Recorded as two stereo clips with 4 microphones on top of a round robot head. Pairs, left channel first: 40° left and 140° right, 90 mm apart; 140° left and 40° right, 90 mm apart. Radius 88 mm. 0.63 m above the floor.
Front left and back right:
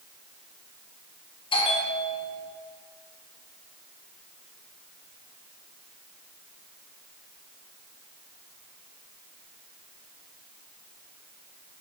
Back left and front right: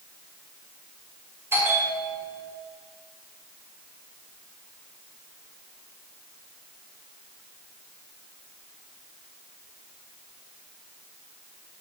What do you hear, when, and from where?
1.5 s a bell: 25° left, 1.6 m